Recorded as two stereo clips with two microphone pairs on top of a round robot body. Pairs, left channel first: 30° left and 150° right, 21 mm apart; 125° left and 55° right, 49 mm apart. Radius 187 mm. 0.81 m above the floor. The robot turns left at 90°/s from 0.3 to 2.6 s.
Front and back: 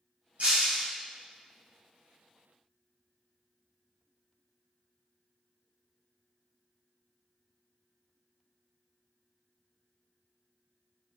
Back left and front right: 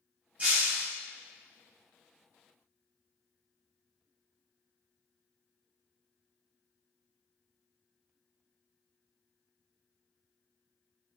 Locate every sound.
0.4 s breaking glass: 120° right, 2.0 m; by 0.8 s 160° right, 2.0 m